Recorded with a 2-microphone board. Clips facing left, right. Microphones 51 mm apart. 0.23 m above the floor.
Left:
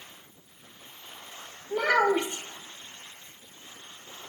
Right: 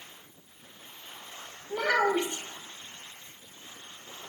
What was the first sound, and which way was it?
A child speaking, 15° left (ahead or behind).